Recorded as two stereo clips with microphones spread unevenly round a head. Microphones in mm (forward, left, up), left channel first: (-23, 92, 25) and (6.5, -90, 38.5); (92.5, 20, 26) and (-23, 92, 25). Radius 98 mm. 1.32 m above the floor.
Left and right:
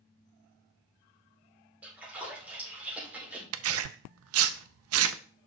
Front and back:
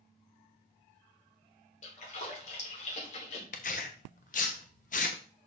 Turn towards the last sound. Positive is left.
turn(degrees=-85)